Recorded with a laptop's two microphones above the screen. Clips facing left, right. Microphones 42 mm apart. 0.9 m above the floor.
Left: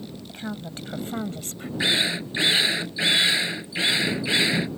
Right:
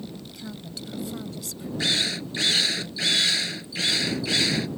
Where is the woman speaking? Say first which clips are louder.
Left 4 dB; 40° left (ahead or behind); by 1.7 s 45° left (ahead or behind).